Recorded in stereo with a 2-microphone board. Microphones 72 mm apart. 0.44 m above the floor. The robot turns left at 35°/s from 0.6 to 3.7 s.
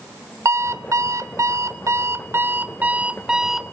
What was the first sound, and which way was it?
An alarm clock, 70° right.